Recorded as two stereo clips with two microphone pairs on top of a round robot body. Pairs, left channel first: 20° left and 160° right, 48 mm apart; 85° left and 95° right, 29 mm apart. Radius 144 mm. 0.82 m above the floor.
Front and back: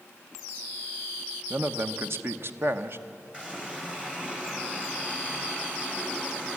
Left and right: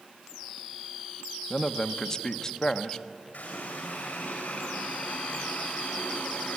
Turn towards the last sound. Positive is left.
turn(degrees=125)